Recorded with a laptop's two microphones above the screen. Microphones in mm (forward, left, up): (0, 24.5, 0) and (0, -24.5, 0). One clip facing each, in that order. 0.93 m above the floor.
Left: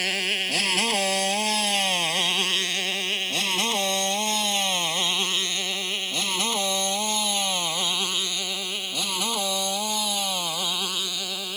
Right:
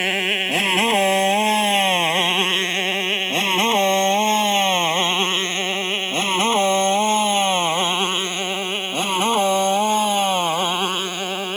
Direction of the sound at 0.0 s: 30° right (ahead or behind).